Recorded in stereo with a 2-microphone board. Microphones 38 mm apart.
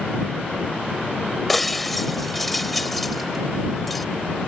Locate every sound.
1.5 s breaking glass: centre (ahead or behind)